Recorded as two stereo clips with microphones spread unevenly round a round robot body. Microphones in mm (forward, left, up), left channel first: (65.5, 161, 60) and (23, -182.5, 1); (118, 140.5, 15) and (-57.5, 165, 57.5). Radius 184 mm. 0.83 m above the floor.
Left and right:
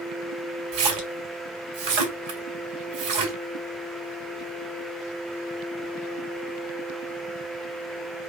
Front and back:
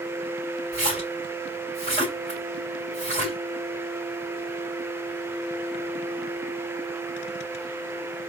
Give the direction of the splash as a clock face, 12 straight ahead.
3 o'clock.